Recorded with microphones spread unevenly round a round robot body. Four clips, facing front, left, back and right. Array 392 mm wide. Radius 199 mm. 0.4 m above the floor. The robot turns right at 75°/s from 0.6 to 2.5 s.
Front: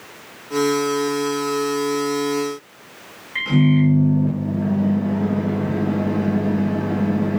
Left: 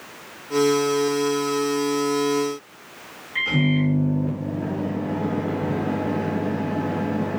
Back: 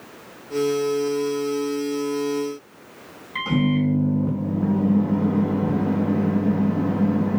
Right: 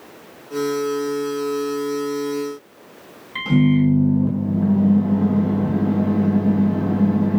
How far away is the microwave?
About 4 m.